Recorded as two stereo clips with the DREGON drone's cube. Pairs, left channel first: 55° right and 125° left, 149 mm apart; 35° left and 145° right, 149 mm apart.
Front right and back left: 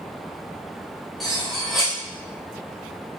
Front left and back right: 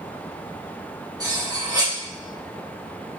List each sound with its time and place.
1.2 s cutlery clinking: 145° right, 0.9 m